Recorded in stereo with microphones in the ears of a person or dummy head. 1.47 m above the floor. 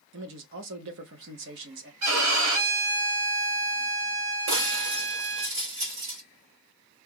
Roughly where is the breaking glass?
Right.